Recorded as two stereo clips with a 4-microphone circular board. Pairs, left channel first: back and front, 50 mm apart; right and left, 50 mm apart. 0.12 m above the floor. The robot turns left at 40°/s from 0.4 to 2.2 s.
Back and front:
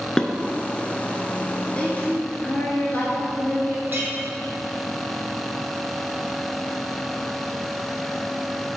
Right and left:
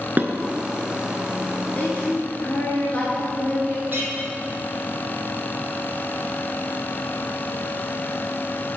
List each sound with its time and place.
0.2 s dishes clattering: 115° left, 0.9 m
1.8 s a woman speaking: 120° right, 1.5 m; by 3.8 s 140° right, 1.5 m
3.9 s a clink: 45° left, 3 m